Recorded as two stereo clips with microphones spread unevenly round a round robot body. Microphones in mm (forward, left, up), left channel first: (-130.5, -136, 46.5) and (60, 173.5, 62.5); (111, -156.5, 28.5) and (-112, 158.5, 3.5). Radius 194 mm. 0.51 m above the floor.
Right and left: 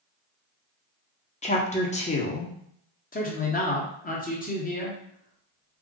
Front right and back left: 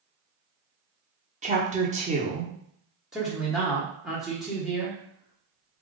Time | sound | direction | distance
1.4 | a woman speaking | straight behind | 1.0 m
3.1 | a man speaking | 155° right | 1.3 m